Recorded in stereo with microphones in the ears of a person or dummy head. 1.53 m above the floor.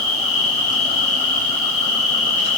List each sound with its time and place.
0.0 s an insect: 45° left (ahead or behind), 8 m